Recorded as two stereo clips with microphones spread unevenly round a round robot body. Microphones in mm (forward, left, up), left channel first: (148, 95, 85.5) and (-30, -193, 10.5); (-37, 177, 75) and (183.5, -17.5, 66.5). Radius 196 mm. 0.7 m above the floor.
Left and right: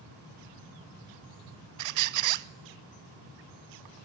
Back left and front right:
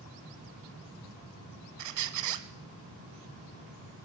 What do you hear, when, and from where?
1.8 s a squeak: 85° right, 1.0 m